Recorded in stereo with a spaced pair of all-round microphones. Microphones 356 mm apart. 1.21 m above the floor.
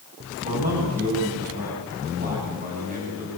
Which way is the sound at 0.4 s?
20° right (ahead or behind).